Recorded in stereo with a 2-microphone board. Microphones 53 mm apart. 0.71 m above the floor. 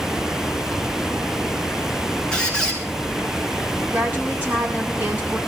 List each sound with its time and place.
2.3 s a squeak: 15° left (ahead or behind), 3.5 m
3.9 s a woman speaking: 30° right (ahead or behind), 7.5 m